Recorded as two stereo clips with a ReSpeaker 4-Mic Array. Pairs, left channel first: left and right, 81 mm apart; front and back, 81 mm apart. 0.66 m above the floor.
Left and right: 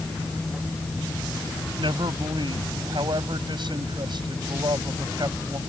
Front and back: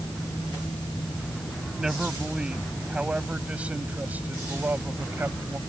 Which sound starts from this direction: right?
A man speaking, at 1.8 s.